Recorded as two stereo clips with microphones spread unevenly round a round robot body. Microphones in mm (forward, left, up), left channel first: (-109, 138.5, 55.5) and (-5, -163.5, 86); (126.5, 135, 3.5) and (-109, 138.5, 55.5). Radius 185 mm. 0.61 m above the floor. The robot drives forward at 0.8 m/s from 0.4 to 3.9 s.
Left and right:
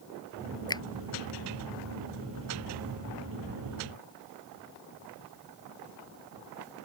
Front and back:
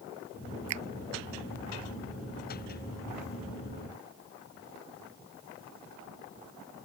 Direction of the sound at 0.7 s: 175° right.